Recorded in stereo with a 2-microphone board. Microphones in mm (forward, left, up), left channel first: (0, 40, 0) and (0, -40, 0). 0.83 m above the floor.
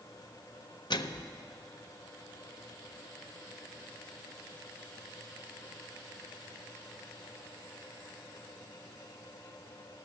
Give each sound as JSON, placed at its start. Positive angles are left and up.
{"t": 0.9, "sound": "a microwave", "side_deg": 65, "distance_m": 0.6}